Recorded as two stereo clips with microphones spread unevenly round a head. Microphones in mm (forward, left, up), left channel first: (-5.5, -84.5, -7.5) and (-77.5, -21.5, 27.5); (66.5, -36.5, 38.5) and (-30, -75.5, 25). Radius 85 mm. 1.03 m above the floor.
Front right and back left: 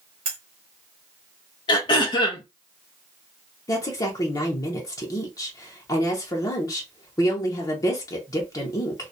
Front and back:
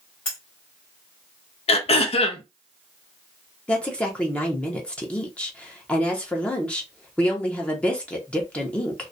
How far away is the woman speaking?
About 0.7 m.